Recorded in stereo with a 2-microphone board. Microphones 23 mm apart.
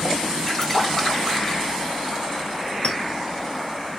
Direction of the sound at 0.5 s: 20° left (ahead or behind).